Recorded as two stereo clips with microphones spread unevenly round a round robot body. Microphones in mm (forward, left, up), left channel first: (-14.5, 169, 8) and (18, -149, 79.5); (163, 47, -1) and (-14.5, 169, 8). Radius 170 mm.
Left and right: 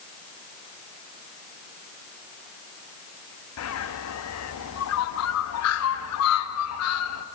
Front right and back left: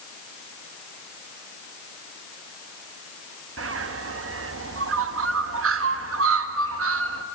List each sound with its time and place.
3.6 s a bird: 135° left, 1.1 m